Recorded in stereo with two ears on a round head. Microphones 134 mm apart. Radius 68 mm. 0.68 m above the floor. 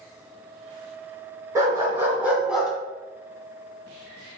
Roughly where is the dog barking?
Right.